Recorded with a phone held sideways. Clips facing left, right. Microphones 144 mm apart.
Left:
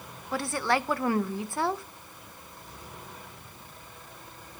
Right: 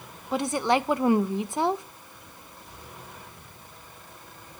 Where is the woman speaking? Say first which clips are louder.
Right 4 dB; 20° right (ahead or behind), 0.5 m.